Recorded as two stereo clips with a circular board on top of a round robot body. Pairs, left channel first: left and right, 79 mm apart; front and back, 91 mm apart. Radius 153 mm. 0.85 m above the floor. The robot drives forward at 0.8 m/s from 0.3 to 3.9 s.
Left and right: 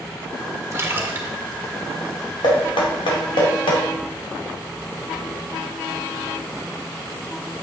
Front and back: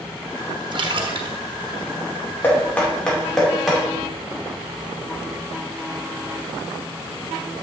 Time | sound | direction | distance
0.7 | a splash | 145° right | 1.0 m
2.4 | knocking | 70° left | 2.5 m